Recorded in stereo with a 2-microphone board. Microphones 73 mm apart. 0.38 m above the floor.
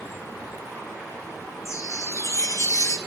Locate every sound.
1.6 s a chime: 50° left (ahead or behind), 1.8 m